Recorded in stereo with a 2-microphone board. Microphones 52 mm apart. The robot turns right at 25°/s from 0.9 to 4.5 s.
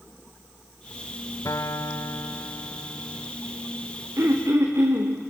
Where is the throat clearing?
50° right (ahead or behind), 3.5 m; by 5.1 s 60° right (ahead or behind), 3.5 m.